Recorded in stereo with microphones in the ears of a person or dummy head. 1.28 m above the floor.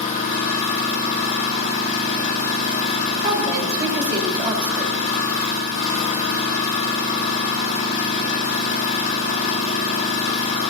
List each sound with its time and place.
0.0 s an engine running: 40° left (ahead or behind), 3.5 m
3.2 s a woman speaking: 30° right (ahead or behind), 4 m